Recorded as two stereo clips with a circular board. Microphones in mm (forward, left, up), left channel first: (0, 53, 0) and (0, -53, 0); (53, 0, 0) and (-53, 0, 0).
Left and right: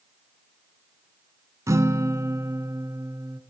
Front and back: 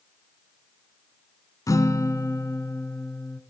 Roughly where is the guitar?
Ahead right.